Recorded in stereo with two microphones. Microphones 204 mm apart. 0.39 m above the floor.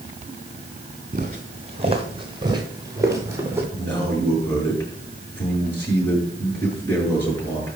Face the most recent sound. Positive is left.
turn(degrees=10)  # may be behind; listen again after turning